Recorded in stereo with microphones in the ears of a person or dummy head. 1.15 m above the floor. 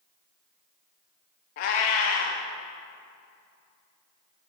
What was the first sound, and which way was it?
A cat meowing, 45° left (ahead or behind).